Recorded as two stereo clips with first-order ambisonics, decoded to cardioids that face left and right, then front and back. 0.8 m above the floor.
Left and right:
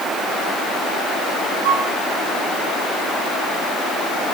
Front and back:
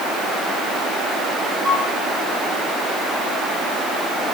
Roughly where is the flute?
Behind right.